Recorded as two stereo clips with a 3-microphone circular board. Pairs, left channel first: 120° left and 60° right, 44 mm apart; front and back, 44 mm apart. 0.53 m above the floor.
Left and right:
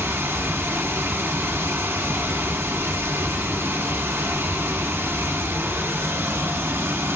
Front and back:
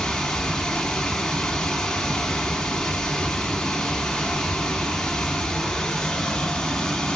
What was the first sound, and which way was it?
Running water, 80° right.